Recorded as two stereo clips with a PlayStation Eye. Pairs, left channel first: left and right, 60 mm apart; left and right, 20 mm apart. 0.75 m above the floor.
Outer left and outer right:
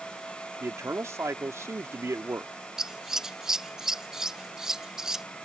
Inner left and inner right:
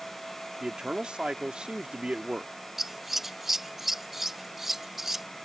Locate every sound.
0.6 s a man speaking: 55° right (ahead or behind)
2.8 s scissors: 10° right (ahead or behind)